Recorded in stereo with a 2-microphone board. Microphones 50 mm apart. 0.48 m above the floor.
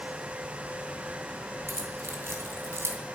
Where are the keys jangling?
60° right (ahead or behind), 2.5 m.